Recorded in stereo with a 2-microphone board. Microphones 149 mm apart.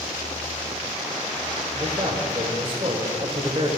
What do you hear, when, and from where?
1.7 s a man speaking: 40° right (ahead or behind), 1.6 m